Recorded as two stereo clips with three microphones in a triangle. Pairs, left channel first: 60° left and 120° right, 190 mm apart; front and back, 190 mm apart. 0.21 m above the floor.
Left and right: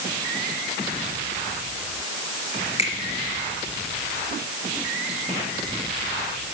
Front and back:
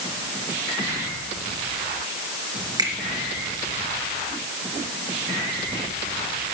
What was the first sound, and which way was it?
A finger snap, 115° left.